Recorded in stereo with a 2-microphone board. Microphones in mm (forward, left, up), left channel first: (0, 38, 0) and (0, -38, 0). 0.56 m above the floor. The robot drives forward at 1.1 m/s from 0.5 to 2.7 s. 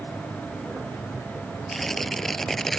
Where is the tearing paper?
5° left (ahead or behind).